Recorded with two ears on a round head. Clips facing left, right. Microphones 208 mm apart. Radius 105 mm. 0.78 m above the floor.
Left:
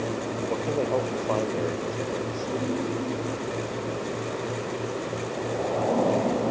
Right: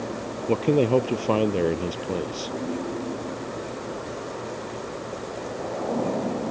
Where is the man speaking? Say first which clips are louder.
Right 8 dB; 50° right (ahead or behind).